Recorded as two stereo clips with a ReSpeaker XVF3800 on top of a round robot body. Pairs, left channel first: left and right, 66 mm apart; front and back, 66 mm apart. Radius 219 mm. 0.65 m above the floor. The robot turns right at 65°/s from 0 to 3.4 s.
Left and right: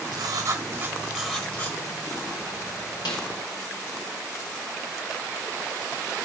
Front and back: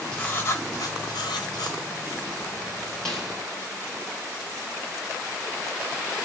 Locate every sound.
0.1 s writing: 75° right, 1.6 m; by 1.8 s 35° left, 1.6 m
3.0 s a snare drum: 80° left, 1.8 m; by 3.3 s 100° left, 1.8 m